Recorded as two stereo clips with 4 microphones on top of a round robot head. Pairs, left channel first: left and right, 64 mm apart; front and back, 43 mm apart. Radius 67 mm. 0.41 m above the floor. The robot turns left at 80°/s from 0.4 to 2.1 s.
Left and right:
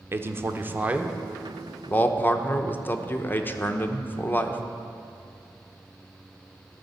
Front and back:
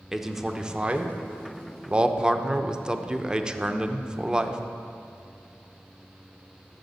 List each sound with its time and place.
0.1 s a man speaking: 100° right, 0.9 m; by 4.6 s 125° left, 0.9 m